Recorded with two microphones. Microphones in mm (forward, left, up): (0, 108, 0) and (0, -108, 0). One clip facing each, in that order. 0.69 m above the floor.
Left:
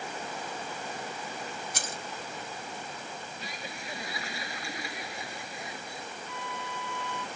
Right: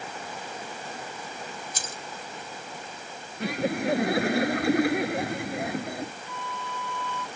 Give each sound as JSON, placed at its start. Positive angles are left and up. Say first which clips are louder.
{"t": 1.7, "sound": "keys jangling", "louder": "left 1 dB", "side_deg": 70}
{"t": 3.4, "sound": "laughter", "louder": "right 15 dB", "side_deg": -65}
{"t": 6.3, "sound": "a flute", "louder": "right 2 dB", "side_deg": 15}